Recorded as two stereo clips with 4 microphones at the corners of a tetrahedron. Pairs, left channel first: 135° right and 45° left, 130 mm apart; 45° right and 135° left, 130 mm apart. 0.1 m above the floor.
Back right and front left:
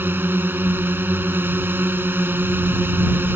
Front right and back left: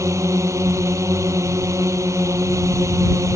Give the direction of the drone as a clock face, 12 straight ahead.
9 o'clock.